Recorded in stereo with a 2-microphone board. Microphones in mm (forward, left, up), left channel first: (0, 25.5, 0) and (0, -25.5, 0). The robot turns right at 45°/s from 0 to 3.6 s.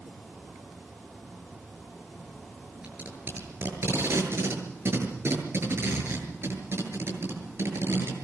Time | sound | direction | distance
2.8 | tape being pulled | 20° right (ahead or behind) | 7.5 m